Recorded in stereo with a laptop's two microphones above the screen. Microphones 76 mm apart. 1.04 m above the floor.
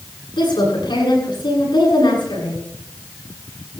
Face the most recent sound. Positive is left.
turn(degrees=80)